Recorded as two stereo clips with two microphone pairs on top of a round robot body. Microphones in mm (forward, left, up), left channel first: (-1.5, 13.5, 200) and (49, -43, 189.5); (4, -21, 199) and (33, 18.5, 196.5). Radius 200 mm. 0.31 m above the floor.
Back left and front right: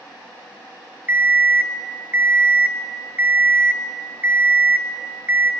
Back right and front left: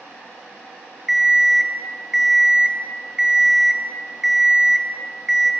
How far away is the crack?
I don't hear a crack.